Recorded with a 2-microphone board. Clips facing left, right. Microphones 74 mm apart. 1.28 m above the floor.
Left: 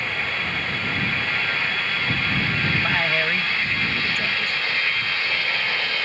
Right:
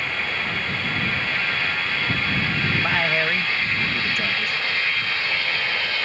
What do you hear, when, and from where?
2.8 s a man speaking: 5° right (ahead or behind)